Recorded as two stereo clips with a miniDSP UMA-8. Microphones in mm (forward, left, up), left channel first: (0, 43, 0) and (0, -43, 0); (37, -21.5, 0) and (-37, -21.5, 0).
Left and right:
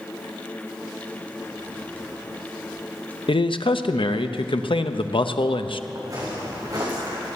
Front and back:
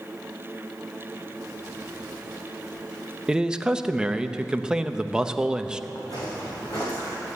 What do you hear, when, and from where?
3.3 s a man speaking: 100° left, 0.7 m
6.0 s footsteps: 40° right, 6 m; by 7.2 s 45° right, 7 m